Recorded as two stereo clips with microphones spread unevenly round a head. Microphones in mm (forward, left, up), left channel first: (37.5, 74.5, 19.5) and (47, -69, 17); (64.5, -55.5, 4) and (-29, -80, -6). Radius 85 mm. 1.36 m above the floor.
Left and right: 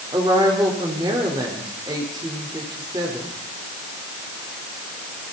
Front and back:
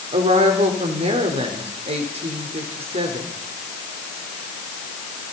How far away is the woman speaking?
About 4 m.